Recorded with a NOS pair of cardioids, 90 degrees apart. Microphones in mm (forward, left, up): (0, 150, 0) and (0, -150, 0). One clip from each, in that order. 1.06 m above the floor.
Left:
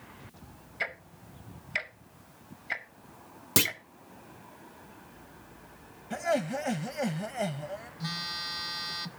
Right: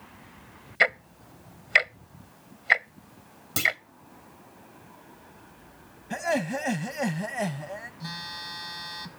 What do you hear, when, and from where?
0.8 s ticking: 50° right, 0.6 m
3.6 s a clunk: 40° left, 1.1 m
6.1 s laughter: 10° right, 0.6 m
8.0 s a phone buzzing: 15° left, 0.8 m